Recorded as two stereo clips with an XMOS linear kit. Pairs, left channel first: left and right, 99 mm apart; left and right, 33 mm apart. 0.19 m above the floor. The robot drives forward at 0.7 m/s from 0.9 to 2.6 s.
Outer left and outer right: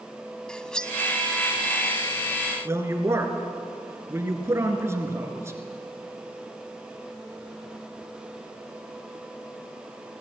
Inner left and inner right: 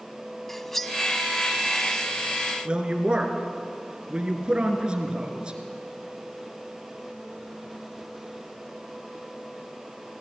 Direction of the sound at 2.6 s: 30° right (ahead or behind).